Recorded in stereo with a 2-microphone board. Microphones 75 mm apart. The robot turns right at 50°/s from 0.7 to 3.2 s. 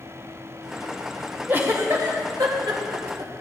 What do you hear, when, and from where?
1.5 s a giggle: 30° right (ahead or behind), 1.9 m; by 3.3 s 60° right (ahead or behind), 1.9 m